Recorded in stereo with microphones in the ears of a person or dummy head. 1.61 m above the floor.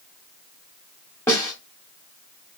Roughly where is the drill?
I don't hear a drill.